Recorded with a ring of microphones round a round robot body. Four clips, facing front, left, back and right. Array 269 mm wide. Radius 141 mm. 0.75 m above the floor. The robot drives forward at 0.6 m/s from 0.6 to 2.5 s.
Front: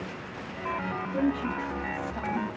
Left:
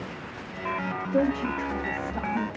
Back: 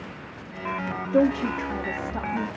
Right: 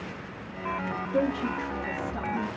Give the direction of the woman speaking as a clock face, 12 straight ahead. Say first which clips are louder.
Left 2 dB, back 7 dB; 6 o'clock.